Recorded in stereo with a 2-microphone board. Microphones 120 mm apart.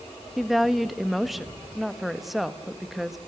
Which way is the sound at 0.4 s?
Centre (ahead or behind).